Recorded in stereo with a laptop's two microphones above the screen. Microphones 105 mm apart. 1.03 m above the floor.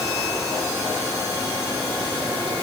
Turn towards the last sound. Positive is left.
No sound to turn to.